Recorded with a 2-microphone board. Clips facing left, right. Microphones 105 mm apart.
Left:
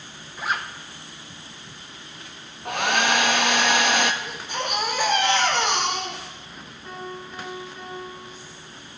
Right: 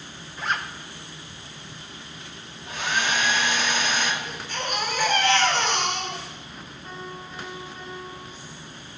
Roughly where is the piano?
Centre.